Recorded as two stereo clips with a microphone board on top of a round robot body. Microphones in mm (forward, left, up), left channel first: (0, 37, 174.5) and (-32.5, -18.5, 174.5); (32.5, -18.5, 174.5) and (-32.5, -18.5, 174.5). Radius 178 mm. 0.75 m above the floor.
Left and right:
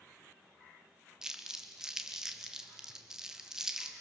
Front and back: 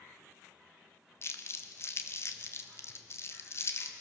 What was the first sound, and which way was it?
Crumpling, 40° right.